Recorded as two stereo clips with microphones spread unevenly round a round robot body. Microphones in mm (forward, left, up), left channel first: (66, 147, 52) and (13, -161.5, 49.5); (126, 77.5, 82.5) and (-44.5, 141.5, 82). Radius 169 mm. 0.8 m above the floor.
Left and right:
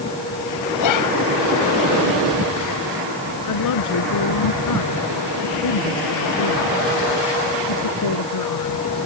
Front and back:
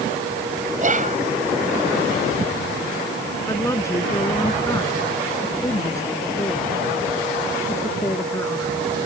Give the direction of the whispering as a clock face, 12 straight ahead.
8 o'clock.